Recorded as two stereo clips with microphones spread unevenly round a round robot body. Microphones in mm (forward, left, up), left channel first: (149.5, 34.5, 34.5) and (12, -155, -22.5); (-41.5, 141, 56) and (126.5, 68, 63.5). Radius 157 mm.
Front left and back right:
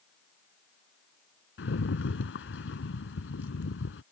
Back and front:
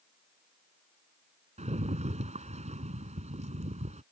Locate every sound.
1.6 s a rattle: 25° left